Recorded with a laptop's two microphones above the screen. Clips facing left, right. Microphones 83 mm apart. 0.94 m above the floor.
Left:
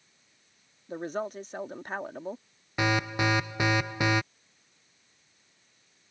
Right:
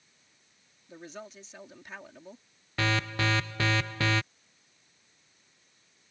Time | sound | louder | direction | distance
0.9 | a woman speaking | left 11 dB | 50° left (ahead or behind) | ?
2.8 | an alarm | left 3 dB | 15° left (ahead or behind) | ?